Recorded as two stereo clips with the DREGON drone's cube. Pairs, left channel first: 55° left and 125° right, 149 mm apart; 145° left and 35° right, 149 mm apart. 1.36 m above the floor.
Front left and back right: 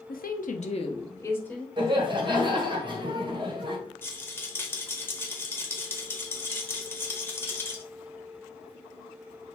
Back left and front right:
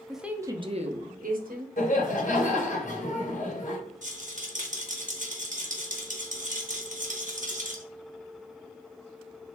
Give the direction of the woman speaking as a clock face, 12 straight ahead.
10 o'clock.